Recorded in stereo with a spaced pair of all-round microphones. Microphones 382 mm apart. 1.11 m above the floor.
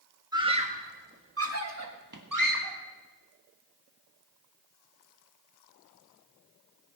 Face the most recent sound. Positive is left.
turn(degrees=-65)  # may be behind; listen again after turning